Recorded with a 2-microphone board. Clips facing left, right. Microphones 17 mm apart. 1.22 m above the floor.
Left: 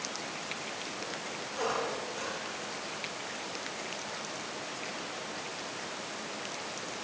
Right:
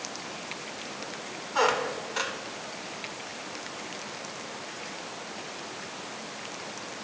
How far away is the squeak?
About 2 m.